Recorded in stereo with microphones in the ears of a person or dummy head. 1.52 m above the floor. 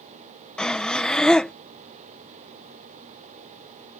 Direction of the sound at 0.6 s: 5° left (ahead or behind).